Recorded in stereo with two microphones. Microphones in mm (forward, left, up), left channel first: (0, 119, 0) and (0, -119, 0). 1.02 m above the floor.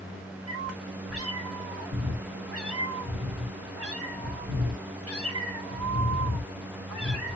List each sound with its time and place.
0.5 s a cat meowing: 80° right, 2 m